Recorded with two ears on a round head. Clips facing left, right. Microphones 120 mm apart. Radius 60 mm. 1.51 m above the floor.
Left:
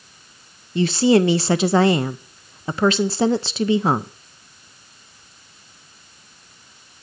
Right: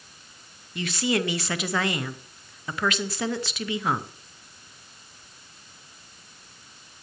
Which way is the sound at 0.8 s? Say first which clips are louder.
Left 11 dB; 30° left (ahead or behind).